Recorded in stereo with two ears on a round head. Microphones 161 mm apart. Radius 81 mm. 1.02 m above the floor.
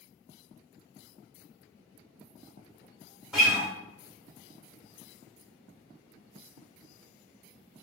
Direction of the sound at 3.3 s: 5° right (ahead or behind).